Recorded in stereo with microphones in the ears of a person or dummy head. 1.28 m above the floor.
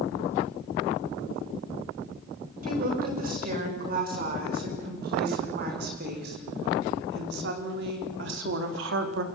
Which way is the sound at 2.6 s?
55° right (ahead or behind).